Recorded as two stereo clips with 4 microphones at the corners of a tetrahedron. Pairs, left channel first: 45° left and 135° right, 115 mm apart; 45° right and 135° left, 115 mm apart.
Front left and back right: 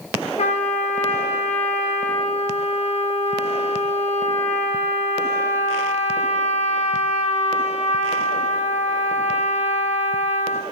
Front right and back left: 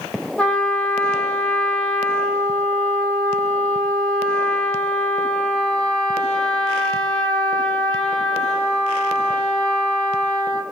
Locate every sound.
0.4 s a trumpet: 35° left, 3 m